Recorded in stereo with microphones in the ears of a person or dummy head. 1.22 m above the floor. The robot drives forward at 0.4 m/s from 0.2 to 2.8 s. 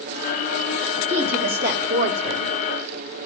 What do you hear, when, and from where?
1.1 s a woman speaking: 60° right (ahead or behind), 2 m; by 2.5 s 70° right (ahead or behind), 1.8 m